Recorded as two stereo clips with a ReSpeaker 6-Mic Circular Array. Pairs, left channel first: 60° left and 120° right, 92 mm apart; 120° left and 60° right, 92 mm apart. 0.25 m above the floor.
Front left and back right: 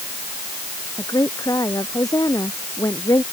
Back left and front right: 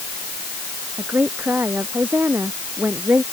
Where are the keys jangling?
I don't hear keys jangling.